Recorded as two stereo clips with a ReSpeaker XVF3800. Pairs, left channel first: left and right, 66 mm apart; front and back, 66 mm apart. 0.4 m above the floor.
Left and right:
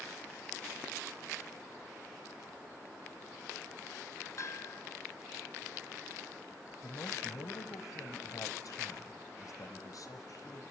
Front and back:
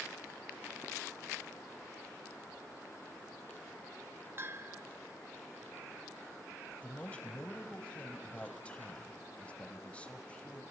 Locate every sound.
4.4 s a bell: 130° left, 0.8 m
6.8 s a man speaking: 70° left, 2 m